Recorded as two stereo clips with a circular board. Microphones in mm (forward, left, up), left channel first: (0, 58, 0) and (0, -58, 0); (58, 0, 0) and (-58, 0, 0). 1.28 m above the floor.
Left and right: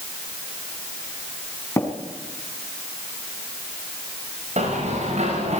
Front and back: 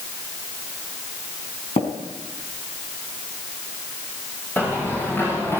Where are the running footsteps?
75° right, 10 m; by 5.6 s 70° right, 9.5 m.